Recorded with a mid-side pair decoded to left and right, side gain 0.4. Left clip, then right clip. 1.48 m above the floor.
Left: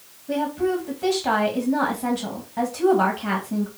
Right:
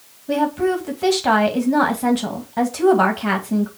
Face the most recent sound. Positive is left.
turn(degrees=-45)